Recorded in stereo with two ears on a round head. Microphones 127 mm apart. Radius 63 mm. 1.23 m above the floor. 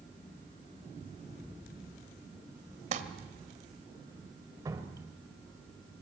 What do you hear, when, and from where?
2.9 s crumpling: 55° right (ahead or behind), 1.7 m
4.7 s dripping: 25° right (ahead or behind), 2 m